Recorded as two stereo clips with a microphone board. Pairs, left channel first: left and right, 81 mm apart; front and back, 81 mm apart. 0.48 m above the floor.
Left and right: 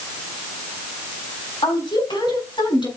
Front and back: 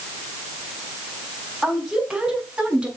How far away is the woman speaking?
About 4.5 m.